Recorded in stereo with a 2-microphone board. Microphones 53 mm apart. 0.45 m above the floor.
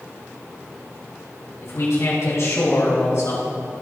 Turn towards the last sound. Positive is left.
turn(degrees=65)  # may be behind; listen again after turning